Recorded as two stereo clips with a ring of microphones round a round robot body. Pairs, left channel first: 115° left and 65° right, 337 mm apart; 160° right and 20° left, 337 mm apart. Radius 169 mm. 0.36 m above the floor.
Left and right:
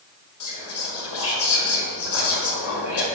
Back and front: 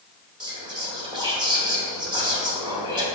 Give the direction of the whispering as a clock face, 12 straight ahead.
9 o'clock.